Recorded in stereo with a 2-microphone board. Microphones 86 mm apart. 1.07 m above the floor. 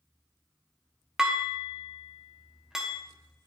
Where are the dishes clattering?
5° right (ahead or behind), 1.0 m.